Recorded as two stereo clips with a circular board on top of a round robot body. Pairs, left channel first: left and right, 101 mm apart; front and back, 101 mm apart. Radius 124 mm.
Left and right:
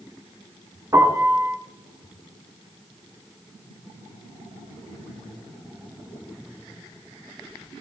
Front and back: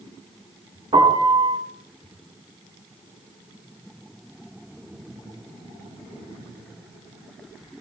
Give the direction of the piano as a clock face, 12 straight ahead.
5 o'clock.